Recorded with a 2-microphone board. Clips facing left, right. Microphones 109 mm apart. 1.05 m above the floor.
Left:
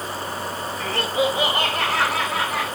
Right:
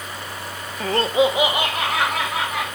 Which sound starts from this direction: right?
Laughter, at 0.8 s.